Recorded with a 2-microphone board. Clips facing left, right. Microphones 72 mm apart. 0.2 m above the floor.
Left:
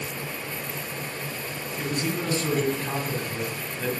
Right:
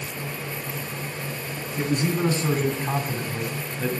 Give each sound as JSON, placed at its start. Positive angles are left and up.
{"t": 1.8, "sound": "a man speaking", "side_deg": -35, "distance_m": 2.5}